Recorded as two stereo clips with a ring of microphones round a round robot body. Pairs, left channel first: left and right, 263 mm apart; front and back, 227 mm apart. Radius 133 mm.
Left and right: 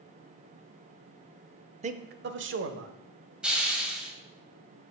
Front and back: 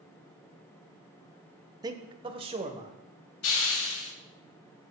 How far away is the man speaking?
About 0.8 m.